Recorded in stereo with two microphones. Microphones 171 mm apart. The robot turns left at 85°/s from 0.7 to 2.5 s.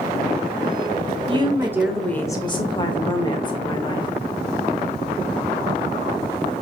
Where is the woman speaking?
125° right, 0.9 m; by 4.1 s 135° left, 0.9 m.